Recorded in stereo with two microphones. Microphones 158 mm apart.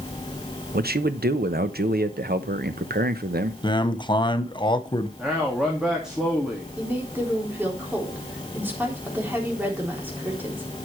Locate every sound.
0.7 s a man speaking: 80° right, 0.8 m
3.6 s a man speaking: 30° left (ahead or behind), 1.0 m
5.2 s a man speaking: 5° right (ahead or behind), 2 m
6.8 s a woman speaking: 10° right (ahead or behind), 3.5 m